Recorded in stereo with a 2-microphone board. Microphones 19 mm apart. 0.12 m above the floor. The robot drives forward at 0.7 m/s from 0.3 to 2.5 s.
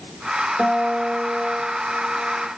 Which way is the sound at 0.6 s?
5° left (ahead or behind).